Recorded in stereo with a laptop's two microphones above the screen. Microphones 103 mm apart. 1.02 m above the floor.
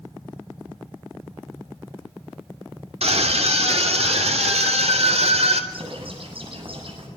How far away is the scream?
About 3 m.